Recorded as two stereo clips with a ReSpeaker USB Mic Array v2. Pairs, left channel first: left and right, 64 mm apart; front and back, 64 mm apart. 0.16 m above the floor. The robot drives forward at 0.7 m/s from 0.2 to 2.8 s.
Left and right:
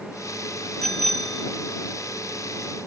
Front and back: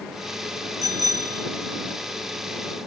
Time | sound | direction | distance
0.8 | a bicycle bell | 175° left | ?